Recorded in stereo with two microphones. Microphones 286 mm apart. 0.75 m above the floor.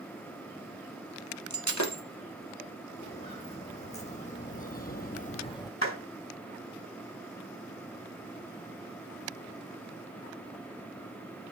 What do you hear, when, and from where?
1.5 s breaking glass: 75° left (ahead or behind), 1.9 m
3.0 s footsteps: 20° left (ahead or behind), 3 m; by 5.7 s 15° left (ahead or behind), 1.1 m
5.8 s a clap: 50° left (ahead or behind), 5.5 m